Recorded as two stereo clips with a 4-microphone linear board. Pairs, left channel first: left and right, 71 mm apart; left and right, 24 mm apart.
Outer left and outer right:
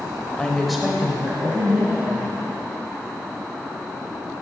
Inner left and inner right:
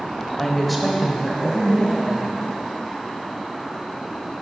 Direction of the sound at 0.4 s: 20° left (ahead or behind).